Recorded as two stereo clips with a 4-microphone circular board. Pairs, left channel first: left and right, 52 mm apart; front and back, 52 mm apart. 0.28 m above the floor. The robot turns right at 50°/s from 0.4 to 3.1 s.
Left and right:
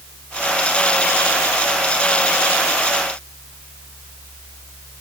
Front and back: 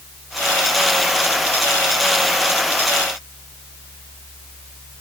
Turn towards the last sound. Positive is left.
No sound to turn to.